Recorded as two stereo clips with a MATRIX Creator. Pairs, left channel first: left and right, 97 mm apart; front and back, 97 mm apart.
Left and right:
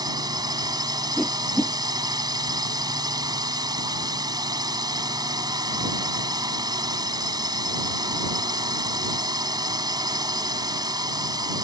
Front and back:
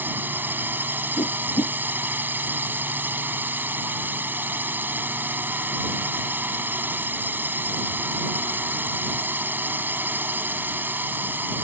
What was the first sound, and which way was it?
A drone, 115° right.